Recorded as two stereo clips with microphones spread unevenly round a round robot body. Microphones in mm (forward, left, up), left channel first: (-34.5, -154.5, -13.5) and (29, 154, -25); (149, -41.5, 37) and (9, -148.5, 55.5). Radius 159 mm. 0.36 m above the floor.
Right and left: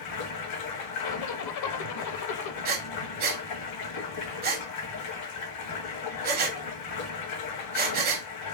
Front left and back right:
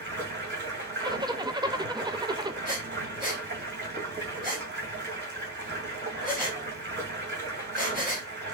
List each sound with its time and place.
0.0 s running water: 125° right, 2 m
1.0 s a zipper: 70° right, 0.6 m
2.6 s breathing: 140° left, 0.7 m